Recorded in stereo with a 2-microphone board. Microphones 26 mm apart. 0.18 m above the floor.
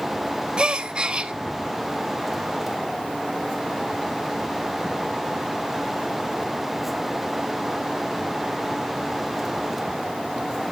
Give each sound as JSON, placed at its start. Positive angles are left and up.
{"t": 0.6, "sound": "a gasp", "side_deg": -30, "distance_m": 1.0}